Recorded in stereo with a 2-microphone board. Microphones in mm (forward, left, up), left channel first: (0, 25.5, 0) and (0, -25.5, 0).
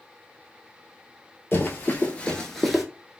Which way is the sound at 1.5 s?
45° left (ahead or behind).